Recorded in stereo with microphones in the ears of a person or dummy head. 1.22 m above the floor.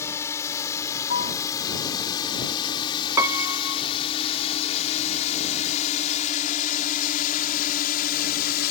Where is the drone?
15° left (ahead or behind); by 8.7 s 55° left (ahead or behind).